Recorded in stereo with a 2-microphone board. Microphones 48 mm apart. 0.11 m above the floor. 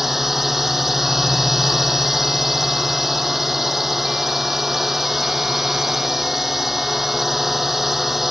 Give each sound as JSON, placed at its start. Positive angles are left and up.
{"t": 0.0, "sound": "a drone", "side_deg": -5}